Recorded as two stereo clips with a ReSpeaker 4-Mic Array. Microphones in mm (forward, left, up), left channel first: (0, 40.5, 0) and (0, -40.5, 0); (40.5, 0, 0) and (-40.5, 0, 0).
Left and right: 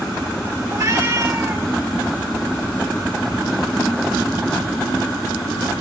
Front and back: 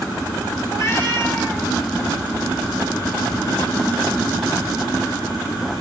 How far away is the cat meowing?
About 3 m.